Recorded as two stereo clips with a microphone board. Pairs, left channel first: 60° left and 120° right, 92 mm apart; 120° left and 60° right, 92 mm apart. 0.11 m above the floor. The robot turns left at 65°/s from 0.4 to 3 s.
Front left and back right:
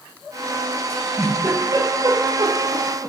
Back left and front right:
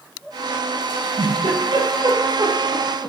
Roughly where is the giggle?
Ahead.